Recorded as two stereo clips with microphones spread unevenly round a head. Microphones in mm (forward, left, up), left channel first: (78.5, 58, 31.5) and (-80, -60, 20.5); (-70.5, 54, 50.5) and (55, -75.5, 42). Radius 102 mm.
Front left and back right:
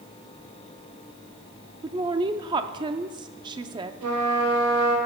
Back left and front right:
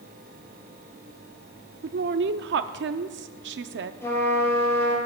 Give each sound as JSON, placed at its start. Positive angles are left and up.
{"t": 1.8, "sound": "a woman speaking", "azimuth_deg": -75, "distance_m": 0.5}
{"t": 4.0, "sound": "a trumpet", "azimuth_deg": -150, "distance_m": 3.5}